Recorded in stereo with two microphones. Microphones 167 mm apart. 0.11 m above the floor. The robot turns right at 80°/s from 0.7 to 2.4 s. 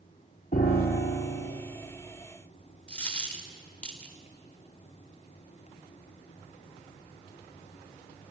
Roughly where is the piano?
Ahead left.